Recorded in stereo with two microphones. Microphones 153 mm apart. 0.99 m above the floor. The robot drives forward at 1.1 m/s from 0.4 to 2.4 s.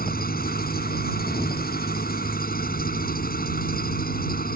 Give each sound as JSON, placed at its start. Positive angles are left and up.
{"t": 0.0, "sound": "an engine running", "side_deg": 80}